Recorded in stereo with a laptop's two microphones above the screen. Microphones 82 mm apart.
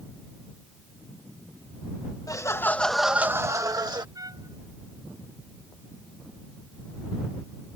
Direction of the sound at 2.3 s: 45° left (ahead or behind).